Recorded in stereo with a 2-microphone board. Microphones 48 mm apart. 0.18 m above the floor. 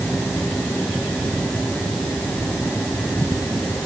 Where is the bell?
No bell in this recording.